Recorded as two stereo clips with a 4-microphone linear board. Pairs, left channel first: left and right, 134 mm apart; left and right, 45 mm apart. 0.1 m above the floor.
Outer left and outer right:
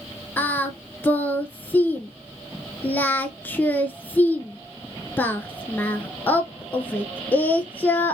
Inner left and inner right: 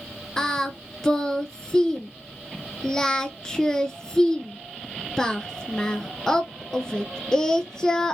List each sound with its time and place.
0.4 s singing: 15° left (ahead or behind), 0.6 m